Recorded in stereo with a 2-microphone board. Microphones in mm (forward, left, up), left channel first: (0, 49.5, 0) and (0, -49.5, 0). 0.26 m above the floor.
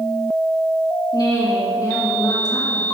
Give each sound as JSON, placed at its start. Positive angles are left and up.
{"t": 1.1, "sound": "a woman speaking", "side_deg": 40, "distance_m": 2.5}